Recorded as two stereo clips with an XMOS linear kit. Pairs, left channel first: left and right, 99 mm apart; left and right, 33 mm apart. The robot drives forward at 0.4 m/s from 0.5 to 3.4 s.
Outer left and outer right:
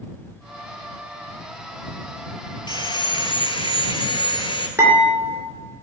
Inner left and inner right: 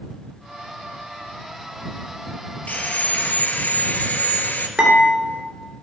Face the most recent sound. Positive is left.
turn(degrees=-30)  # may be behind; listen again after turning